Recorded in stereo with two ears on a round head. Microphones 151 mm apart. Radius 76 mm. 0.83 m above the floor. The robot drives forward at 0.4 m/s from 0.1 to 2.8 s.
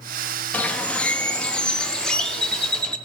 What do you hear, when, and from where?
0.5 s a bird: 10° left (ahead or behind), 0.6 m; by 3.0 s 5° left (ahead or behind), 1.5 m